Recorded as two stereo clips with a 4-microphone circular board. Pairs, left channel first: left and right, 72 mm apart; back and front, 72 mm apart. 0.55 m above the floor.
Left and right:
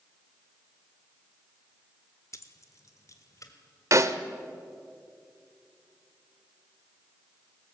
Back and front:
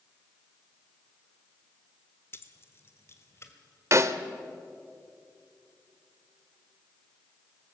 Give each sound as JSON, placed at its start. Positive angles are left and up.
{"t": 2.3, "sound": "keys jangling", "azimuth_deg": 130, "distance_m": 1.1}
{"t": 3.9, "sound": "a snare drum", "azimuth_deg": -45, "distance_m": 0.9}